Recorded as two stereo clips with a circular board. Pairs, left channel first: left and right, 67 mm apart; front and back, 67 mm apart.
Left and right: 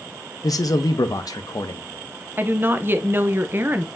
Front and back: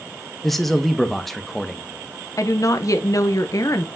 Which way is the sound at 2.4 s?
35° right.